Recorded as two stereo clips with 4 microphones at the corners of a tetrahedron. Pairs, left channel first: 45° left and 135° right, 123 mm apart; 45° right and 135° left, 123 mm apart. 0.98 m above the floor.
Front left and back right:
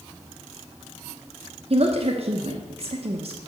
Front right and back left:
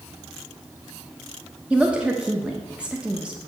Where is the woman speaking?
145° right, 0.9 m.